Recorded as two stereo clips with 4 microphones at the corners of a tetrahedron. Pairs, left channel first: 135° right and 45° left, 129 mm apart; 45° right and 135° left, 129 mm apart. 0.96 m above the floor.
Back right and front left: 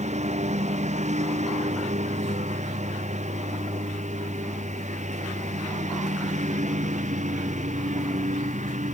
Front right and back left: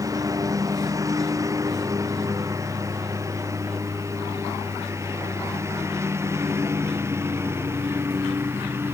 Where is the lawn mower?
70° left; by 8.9 s 65° left.